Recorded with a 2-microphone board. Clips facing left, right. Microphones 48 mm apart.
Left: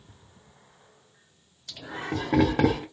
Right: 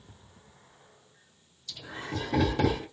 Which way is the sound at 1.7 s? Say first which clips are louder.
Left 4 dB; 60° left (ahead or behind).